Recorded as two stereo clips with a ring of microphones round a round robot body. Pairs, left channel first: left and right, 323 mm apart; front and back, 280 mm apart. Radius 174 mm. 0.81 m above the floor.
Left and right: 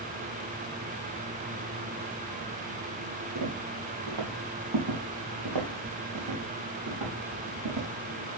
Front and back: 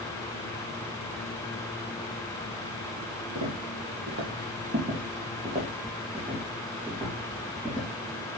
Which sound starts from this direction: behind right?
Footsteps, at 3.4 s.